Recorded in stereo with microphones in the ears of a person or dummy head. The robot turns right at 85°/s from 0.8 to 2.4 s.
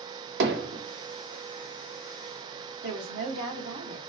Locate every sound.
0.4 s hammering: 60° right (ahead or behind), 0.9 m
2.8 s a woman speaking: 75° right (ahead or behind), 1.3 m